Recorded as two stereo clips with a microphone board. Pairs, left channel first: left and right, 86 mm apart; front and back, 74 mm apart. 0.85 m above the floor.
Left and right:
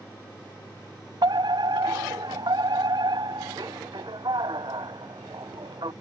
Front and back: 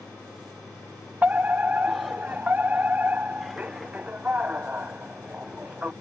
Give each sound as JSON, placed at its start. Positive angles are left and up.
{"t": 1.2, "sound": "a fire alarm", "azimuth_deg": -110}